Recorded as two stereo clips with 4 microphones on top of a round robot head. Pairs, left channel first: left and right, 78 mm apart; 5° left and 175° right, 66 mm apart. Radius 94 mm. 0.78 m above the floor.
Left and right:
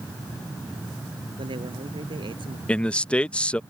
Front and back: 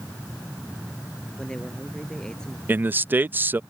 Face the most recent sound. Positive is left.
turn(degrees=155)